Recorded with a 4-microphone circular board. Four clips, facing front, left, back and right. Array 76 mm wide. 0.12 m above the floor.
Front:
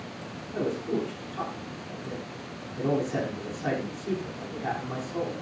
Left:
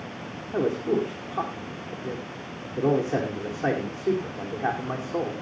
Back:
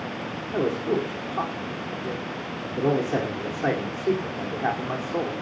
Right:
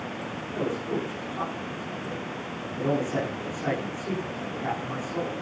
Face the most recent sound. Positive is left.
turn(degrees=135)